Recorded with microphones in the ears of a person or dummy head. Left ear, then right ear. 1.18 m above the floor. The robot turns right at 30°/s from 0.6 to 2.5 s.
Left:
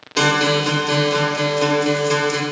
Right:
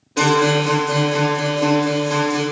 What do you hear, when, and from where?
0.2 s a guitar: 30° left, 0.8 m; by 2.4 s 85° left, 0.8 m